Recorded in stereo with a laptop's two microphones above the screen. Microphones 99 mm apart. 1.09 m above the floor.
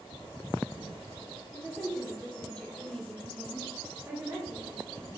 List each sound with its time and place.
1.5 s a woman speaking: 15° left (ahead or behind), 1.8 m; by 5.1 s 25° right (ahead or behind), 1.1 m